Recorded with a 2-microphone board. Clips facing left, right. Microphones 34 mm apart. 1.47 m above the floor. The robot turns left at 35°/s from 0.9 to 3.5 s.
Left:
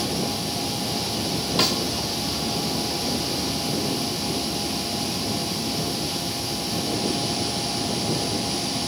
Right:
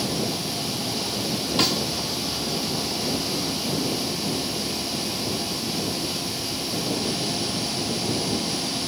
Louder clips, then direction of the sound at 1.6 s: Even; centre (ahead or behind).